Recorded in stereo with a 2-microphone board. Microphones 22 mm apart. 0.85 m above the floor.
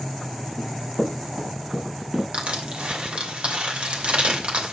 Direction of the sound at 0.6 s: 65° right (ahead or behind).